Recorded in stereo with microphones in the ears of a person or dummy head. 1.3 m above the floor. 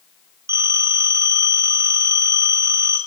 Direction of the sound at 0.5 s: 15° right (ahead or behind).